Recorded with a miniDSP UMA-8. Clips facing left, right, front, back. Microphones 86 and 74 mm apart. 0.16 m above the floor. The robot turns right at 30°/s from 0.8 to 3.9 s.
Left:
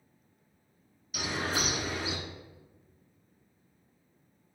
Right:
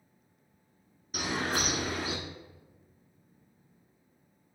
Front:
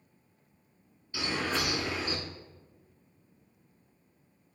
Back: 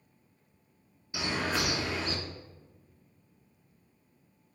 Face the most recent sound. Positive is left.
turn(degrees=-30)